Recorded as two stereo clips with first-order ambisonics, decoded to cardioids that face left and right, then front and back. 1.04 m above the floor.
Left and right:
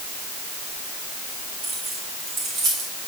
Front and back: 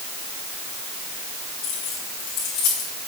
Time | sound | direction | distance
1.6 | keys jangling | 40° right | 7.5 m